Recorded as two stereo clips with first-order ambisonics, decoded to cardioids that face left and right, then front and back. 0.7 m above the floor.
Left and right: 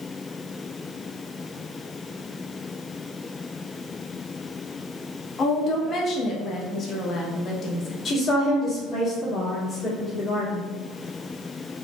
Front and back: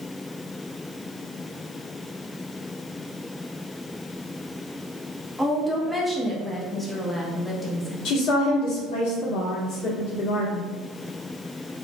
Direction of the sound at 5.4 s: 80° left.